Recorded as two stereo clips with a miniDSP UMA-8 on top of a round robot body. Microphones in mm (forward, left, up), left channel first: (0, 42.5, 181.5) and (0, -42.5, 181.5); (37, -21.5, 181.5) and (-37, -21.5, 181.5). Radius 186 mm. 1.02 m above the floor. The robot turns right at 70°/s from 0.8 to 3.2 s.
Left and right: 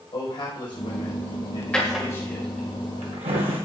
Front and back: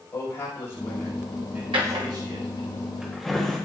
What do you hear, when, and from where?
0.1 s a man speaking: 60° left, 5 m; by 2.7 s 165° right, 5 m
1.7 s a drawer: 170° left, 1.5 m; by 3.6 s 90° right, 1.5 m